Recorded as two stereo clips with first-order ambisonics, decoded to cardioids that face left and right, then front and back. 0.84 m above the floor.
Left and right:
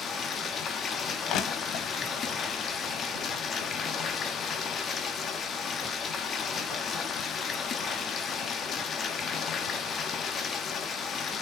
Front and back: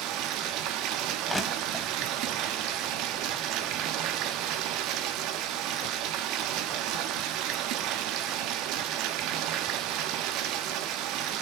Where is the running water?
150° left, 1.3 m.